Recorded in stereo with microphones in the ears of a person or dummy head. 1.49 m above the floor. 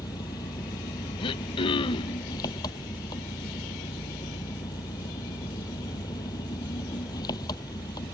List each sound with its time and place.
0.0 s an engine running: 20° left (ahead or behind)
1.2 s throat clearing: 25° left (ahead or behind)